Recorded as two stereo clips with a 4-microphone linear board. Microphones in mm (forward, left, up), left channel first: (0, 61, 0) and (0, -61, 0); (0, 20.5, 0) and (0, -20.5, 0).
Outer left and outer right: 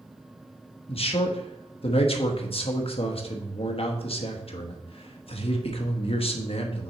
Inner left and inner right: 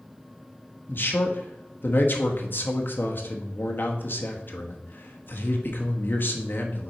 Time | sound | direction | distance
0.9 | a man speaking | 55° left (ahead or behind) | 1.0 m